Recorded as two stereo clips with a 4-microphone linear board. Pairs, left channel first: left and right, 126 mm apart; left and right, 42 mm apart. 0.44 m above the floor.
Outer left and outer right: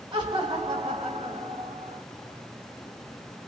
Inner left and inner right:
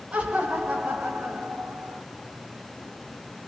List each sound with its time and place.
0.1 s laughter: 40° right (ahead or behind), 1.3 m; by 2.0 s 65° right (ahead or behind), 1.8 m